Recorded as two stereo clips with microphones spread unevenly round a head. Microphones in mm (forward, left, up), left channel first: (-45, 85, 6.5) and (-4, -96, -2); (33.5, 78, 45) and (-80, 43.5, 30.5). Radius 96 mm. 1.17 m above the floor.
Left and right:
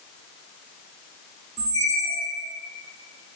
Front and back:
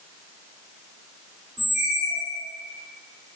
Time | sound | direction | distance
1.6 | a squeak | 85° right | 0.8 m